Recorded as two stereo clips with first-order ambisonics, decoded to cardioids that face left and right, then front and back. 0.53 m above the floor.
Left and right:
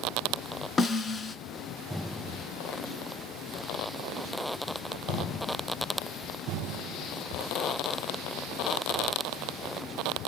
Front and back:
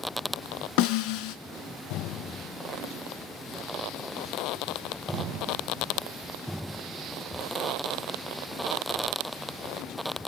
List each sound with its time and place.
0.8 s a snare drum: 15° left, 1.0 m